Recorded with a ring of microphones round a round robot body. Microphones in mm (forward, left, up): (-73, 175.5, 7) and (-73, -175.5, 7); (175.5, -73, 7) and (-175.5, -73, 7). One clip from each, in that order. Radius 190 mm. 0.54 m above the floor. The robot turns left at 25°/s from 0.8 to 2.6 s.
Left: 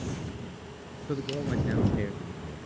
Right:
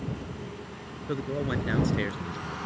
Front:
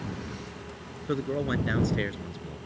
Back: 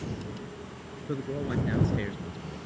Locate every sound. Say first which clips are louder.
1.1 s a man speaking: right 1 dB, front 4 dB; 20° right; by 2.6 s 55° right